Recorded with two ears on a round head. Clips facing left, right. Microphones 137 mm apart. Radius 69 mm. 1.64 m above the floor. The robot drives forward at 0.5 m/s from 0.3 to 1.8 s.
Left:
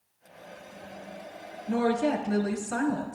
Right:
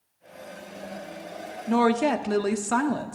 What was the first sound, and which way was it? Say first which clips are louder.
A woman speaking: right 4 dB; 80° right.